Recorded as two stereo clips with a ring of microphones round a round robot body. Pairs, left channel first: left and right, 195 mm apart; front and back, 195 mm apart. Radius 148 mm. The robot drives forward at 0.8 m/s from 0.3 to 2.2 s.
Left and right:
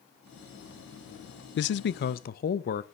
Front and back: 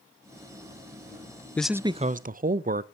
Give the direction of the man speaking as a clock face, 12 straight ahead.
9 o'clock.